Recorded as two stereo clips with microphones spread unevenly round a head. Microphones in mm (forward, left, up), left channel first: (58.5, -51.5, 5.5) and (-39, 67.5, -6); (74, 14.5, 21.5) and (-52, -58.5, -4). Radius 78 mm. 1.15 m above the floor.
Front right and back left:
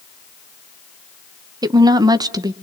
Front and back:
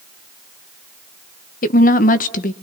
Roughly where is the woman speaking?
Left.